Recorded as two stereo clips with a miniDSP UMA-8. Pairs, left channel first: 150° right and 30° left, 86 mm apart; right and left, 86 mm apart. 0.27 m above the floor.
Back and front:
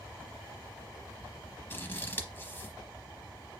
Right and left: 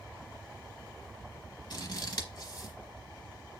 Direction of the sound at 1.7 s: 95° right.